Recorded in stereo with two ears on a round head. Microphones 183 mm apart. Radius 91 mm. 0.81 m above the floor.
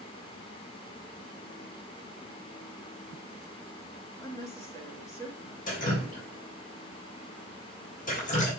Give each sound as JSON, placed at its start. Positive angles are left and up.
{"t": 4.2, "sound": "a woman speaking", "side_deg": 15, "distance_m": 2.0}
{"t": 5.7, "sound": "dripping", "side_deg": 45, "distance_m": 3.5}